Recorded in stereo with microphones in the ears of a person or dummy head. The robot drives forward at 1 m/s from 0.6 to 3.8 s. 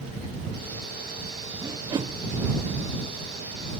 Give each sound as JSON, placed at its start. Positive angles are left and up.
{"t": 1.6, "sound": "a whoosh", "side_deg": -20}